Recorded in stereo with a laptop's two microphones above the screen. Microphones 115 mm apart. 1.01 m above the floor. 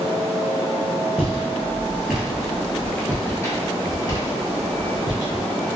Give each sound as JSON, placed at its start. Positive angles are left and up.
{"t": 1.2, "sound": "footsteps", "side_deg": -15, "distance_m": 1.4}